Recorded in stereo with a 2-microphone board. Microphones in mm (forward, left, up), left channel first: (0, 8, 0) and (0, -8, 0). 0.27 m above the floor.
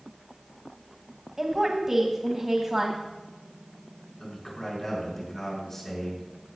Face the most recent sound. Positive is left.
turn(degrees=25)  # may be behind; listen again after turning